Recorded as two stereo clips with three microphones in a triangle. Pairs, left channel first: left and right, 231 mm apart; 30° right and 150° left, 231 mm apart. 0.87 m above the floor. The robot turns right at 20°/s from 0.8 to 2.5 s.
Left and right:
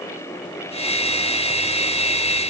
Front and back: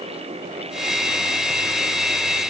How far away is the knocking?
No knocking in this recording.